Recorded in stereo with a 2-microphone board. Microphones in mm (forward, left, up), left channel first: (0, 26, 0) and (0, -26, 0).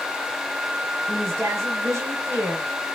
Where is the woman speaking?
65° right (ahead or behind), 1.9 m.